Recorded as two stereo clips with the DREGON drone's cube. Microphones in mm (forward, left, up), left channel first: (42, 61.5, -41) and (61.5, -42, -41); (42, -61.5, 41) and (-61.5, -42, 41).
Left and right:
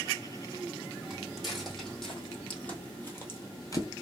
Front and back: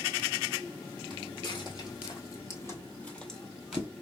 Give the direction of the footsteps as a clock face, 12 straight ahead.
12 o'clock.